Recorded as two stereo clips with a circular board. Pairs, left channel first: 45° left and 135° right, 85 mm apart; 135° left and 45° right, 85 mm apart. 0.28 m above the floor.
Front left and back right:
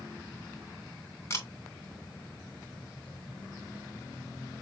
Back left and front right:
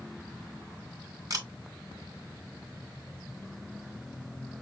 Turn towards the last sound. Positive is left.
turn(degrees=-5)